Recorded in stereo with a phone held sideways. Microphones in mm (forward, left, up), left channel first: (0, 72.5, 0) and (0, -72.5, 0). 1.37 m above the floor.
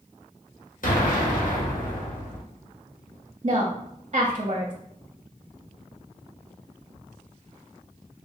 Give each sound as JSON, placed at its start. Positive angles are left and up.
{"t": 0.8, "sound": "an explosion", "side_deg": 65, "distance_m": 0.9}
{"t": 3.4, "sound": "a woman speaking", "side_deg": -45, "distance_m": 0.6}